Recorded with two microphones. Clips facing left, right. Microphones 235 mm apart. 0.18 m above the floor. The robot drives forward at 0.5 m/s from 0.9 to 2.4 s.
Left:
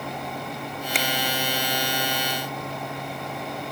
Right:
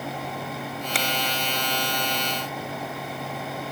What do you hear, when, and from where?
0.9 s a finger snap: 20° left (ahead or behind), 1.1 m; by 1.1 s 15° left (ahead or behind), 1.1 m